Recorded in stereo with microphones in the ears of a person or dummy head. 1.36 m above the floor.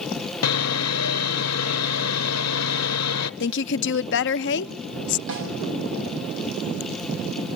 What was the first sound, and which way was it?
Sawing, 75° left (ahead or behind).